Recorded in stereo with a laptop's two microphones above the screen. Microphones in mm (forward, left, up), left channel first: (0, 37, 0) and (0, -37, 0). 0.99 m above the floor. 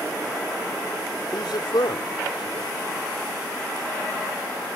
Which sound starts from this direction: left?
A man speaking, at 1.3 s.